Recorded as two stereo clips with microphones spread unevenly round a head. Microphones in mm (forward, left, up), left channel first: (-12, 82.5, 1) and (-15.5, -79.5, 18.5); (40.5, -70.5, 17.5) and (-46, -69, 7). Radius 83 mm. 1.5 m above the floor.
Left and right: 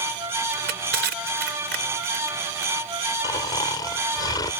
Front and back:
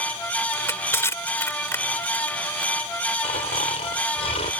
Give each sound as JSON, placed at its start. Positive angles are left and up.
{"t": 0.5, "sound": "crushing", "azimuth_deg": -60}
{"t": 3.2, "sound": "snoring", "azimuth_deg": 20}